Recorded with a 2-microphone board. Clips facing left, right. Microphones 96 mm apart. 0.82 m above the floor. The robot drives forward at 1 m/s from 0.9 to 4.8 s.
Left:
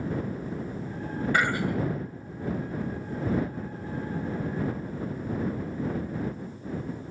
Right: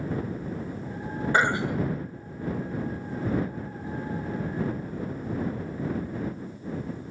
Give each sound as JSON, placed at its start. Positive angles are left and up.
{"t": 1.3, "sound": "throat clearing", "side_deg": -25, "distance_m": 0.6}